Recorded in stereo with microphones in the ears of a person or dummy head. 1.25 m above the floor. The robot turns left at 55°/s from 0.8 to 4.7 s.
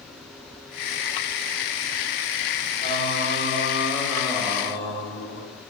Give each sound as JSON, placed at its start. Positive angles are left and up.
{"t": 2.8, "sound": "singing", "azimuth_deg": -135, "distance_m": 1.9}